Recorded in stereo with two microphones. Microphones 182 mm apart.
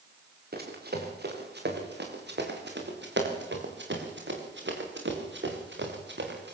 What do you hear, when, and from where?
0.5 s running footsteps: 60° right (ahead or behind), 6 m; by 6.5 s 75° right (ahead or behind), 6.5 m